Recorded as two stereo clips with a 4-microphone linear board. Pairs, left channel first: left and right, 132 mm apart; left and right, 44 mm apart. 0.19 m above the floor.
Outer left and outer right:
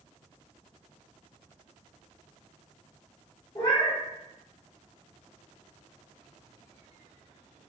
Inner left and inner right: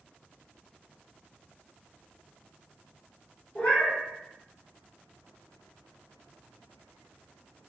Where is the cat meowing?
35° left (ahead or behind), 1.1 m.